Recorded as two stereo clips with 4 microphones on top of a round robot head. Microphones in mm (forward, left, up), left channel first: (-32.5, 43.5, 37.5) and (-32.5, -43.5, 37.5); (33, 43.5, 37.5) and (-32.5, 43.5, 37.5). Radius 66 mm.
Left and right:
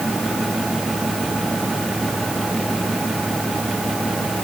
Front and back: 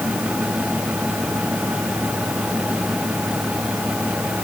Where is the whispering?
No whispering in this recording.